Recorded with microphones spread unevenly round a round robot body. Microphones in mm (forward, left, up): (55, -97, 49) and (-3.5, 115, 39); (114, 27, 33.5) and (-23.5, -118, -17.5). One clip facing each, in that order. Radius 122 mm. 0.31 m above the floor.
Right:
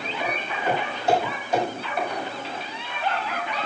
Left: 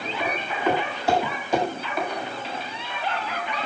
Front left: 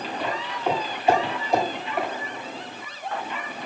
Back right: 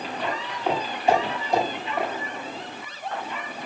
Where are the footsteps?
140° left, 9 m; by 2.1 s 130° left, 7.5 m.